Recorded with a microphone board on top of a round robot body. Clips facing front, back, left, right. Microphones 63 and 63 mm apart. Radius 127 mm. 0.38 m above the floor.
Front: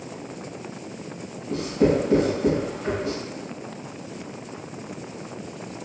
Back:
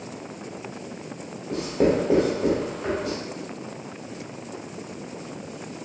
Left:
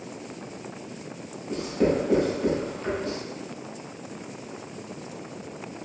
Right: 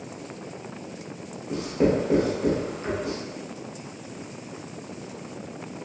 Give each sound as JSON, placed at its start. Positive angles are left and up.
{"t": 1.5, "sound": "writing", "azimuth_deg": -170, "distance_m": 1.6}